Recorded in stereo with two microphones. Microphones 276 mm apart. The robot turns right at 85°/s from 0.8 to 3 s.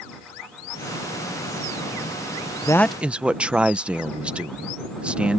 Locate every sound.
2.6 s a man speaking: 155° left; by 5.4 s 175° right